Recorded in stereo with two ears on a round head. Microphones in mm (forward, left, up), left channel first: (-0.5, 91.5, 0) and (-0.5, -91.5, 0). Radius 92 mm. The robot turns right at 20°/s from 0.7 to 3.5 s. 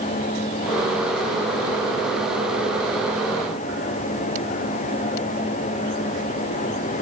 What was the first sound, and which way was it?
Only background noise.